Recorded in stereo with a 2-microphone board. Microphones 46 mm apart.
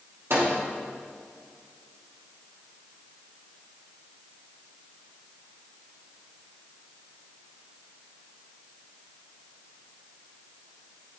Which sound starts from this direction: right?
A microwave, at 0.3 s.